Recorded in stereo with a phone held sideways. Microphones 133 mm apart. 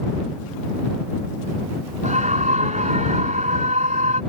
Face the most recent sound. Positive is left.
turn(degrees=-70)  # may be behind; listen again after turning